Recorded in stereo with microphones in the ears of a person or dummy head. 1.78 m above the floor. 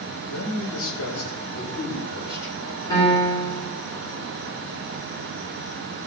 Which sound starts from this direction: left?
A man speaking, at 0.3 s.